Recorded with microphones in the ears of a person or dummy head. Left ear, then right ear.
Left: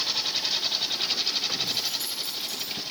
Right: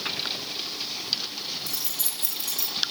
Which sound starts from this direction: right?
Keys jangling, at 1.7 s.